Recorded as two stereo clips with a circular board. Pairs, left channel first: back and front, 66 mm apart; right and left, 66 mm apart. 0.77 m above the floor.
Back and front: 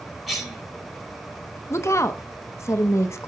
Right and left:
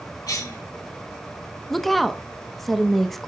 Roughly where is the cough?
Right.